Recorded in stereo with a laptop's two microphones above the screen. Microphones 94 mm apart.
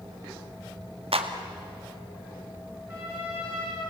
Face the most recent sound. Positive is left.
turn(degrees=-20)  # may be behind; listen again after turning